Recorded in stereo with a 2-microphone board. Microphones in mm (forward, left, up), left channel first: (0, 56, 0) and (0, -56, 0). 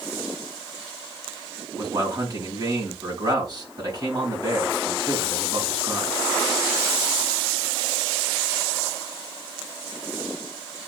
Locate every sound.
1.8 s a man speaking: 40° right (ahead or behind), 3.5 m